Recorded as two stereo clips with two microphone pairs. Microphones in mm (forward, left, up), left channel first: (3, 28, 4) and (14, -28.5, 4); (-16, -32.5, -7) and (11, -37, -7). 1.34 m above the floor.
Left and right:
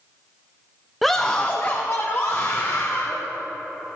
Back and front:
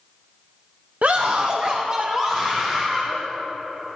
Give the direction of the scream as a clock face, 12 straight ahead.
12 o'clock.